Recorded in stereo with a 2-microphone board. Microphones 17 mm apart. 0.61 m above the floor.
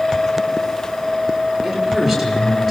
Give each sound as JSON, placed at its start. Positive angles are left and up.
{"t": 1.6, "sound": "a woman speaking", "side_deg": 0, "distance_m": 9.5}